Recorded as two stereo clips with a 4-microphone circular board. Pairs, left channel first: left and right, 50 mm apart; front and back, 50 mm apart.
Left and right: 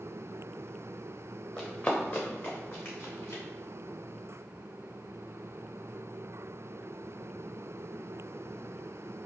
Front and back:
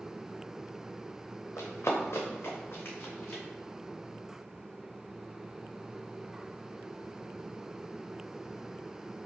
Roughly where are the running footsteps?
Ahead.